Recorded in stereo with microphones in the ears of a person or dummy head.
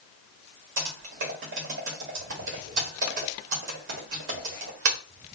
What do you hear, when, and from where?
0.8 s typing on a keyboard: 45° right (ahead or behind), 1.3 m